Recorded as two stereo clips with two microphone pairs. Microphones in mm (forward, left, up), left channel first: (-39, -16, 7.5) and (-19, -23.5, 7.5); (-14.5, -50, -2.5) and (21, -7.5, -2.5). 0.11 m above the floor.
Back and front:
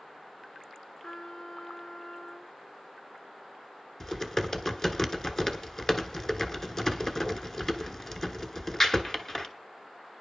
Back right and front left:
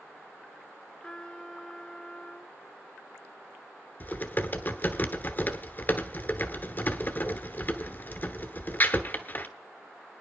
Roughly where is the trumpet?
Behind.